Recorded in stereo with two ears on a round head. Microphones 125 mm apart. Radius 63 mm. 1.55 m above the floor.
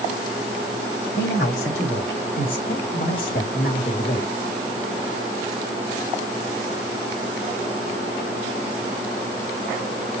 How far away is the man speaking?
About 3 m.